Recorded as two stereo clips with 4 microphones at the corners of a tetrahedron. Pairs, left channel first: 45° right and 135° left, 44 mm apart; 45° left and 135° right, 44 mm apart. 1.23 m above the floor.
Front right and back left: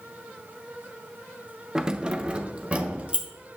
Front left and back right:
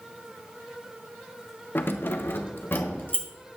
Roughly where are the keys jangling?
Ahead left.